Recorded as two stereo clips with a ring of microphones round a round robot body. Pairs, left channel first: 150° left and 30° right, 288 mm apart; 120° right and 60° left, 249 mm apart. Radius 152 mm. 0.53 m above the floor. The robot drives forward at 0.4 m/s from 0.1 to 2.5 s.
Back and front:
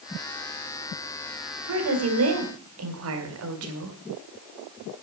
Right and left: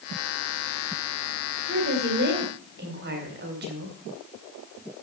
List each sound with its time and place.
1.7 s a woman speaking: 5° left, 3.5 m